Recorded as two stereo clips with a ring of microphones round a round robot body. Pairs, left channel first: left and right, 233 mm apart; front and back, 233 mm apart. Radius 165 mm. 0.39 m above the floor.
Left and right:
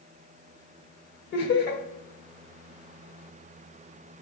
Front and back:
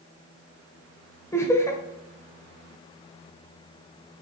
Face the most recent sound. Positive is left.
turn(degrees=75)